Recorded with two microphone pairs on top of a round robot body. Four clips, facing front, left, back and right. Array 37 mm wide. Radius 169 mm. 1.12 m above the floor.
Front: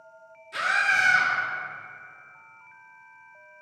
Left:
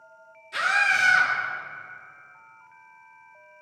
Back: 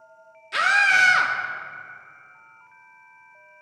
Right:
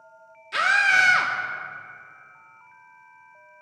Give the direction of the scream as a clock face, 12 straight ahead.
4 o'clock.